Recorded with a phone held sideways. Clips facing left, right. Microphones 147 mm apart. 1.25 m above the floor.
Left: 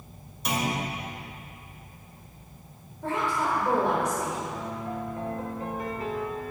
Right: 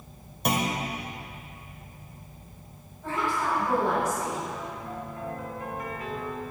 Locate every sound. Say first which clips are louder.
0.5 s a clunk: right 1 dB; 55° right (ahead or behind), 1.6 m
3.0 s a woman speaking: left 1 dB; 70° left (ahead or behind), 4 m
4.5 s a piano: left 3 dB; 30° left (ahead or behind), 1.3 m